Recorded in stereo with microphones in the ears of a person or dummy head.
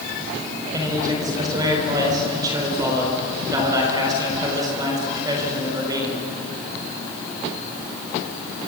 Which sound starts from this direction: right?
A man speaking, at 0.7 s.